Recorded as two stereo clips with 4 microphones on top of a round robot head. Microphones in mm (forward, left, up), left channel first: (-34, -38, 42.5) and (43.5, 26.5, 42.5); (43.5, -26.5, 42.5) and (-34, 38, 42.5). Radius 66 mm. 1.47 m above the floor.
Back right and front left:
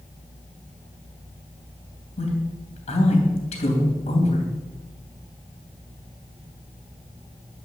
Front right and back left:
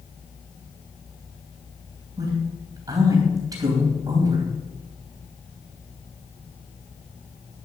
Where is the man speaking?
165° right, 3 m.